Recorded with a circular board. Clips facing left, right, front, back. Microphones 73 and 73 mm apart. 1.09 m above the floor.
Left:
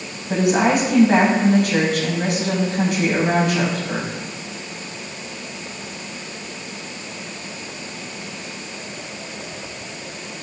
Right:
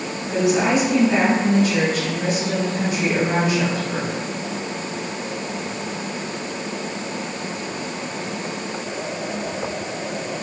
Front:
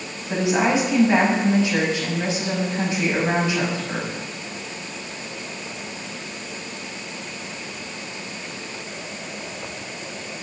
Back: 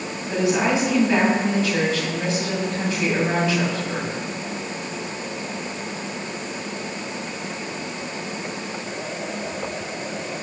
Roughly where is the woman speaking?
Ahead left.